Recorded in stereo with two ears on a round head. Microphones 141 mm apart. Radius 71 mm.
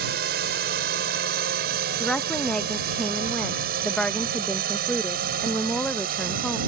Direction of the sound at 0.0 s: 70° right (ahead or behind).